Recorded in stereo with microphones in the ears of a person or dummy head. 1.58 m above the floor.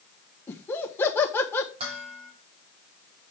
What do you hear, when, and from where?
0.5 s laughter: 10° left (ahead or behind), 1.3 m
1.8 s dishes clattering: 30° right (ahead or behind), 3 m